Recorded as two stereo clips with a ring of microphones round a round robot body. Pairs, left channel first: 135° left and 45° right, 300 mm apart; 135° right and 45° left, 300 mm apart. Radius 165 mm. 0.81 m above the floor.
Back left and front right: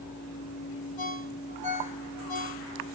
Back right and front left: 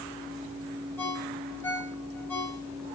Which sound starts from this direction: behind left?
A ringtone, at 1.0 s.